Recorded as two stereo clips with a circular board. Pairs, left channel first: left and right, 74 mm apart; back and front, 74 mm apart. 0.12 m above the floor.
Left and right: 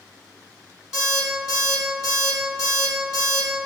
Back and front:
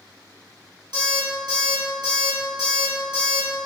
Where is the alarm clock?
10° right, 1.8 m.